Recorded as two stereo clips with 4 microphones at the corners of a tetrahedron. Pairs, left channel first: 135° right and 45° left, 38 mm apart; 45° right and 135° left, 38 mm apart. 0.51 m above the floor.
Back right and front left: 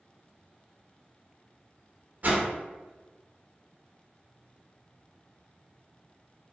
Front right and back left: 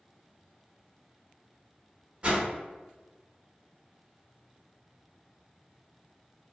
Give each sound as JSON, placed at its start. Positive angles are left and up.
{"t": 2.2, "sound": "a whoosh", "azimuth_deg": 85, "distance_m": 0.6}